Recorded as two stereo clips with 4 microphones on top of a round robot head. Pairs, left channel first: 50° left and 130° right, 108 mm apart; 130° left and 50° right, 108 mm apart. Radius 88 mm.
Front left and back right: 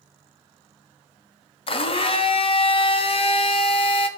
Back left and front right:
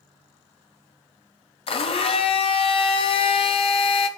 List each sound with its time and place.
1.7 s a blender: 90° left, 0.5 m